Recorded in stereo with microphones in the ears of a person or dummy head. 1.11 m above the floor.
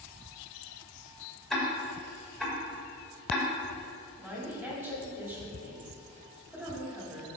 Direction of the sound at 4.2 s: 5° right (ahead or behind).